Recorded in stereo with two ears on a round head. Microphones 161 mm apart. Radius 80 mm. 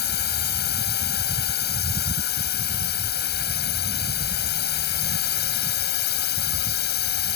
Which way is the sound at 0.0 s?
60° left (ahead or behind).